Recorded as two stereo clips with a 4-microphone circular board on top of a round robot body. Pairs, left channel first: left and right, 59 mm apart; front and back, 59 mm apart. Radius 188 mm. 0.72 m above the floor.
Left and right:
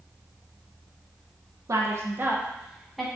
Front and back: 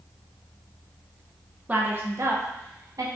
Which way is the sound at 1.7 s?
115° right.